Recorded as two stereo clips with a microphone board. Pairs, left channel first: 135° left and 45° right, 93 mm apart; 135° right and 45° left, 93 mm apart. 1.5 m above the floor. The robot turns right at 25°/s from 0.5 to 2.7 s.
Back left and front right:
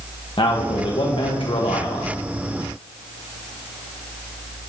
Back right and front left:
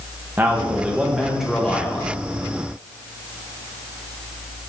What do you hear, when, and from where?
0.4 s a man speaking: 110° left, 1.2 m; by 2.1 s 150° left, 1.2 m